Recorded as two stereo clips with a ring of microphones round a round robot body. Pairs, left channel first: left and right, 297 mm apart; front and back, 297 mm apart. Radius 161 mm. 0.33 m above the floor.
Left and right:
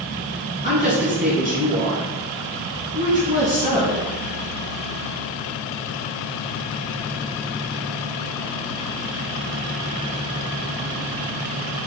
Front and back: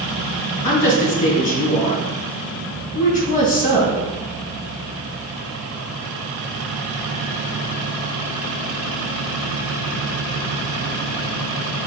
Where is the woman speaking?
25° left, 3 m.